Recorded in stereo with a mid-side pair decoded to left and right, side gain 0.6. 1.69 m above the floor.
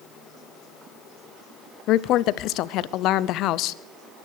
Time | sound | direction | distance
1.9 | a woman speaking | 65° left | 0.7 m